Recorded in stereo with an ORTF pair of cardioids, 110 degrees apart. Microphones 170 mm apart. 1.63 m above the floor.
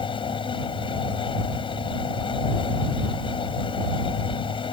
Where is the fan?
30° left.